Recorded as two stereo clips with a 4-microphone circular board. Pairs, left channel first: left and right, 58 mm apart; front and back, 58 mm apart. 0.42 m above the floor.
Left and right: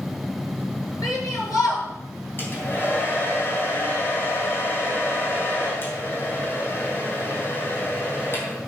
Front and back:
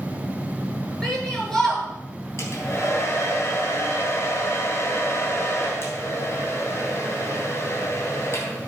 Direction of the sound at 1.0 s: 85° left.